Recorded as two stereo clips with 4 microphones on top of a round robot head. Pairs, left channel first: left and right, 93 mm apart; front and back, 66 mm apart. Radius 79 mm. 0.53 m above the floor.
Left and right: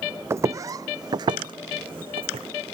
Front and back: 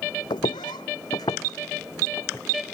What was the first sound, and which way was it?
Footsteps, 25° right.